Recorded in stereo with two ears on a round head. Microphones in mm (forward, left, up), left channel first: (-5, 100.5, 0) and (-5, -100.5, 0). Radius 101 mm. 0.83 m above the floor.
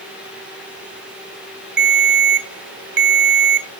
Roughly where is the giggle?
I don't hear a giggle.